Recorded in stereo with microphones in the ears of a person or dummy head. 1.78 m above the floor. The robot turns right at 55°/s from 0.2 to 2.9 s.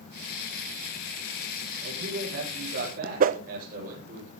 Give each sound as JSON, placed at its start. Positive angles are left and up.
{"t": 1.8, "sound": "a man speaking", "azimuth_deg": -120, "distance_m": 10.0}
{"t": 3.2, "sound": "a whoosh", "side_deg": -45, "distance_m": 0.8}